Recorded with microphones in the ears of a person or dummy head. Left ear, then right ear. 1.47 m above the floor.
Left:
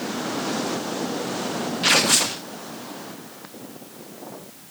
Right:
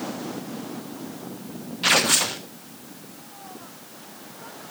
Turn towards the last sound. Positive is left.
turn(degrees=0)  # may be behind; listen again after turning